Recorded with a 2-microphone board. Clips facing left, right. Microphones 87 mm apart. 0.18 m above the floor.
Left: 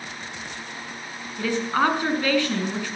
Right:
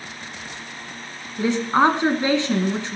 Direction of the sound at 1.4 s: 25° right (ahead or behind).